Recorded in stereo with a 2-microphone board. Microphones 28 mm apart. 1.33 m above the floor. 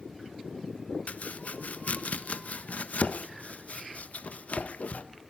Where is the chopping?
55° left (ahead or behind), 1.2 m.